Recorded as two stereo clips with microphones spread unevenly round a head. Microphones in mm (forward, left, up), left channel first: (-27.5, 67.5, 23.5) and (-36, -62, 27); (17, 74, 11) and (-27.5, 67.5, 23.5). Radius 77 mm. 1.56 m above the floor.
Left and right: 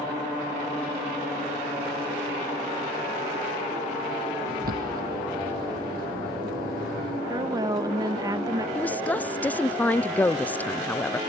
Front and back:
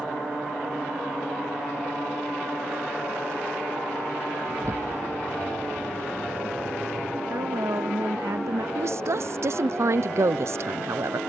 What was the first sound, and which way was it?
A bird, 105° right.